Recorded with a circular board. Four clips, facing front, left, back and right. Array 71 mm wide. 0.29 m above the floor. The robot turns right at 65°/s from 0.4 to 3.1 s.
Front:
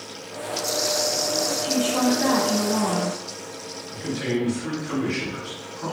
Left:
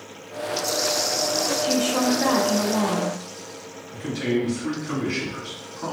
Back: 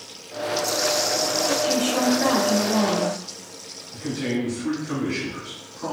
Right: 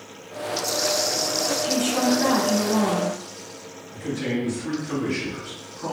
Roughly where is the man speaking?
Left.